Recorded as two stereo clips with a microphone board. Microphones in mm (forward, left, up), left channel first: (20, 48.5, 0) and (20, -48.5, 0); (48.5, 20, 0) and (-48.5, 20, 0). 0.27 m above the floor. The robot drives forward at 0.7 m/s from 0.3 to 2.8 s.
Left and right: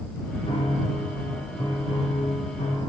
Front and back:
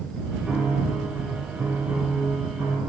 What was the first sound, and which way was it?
A piano, 95° left.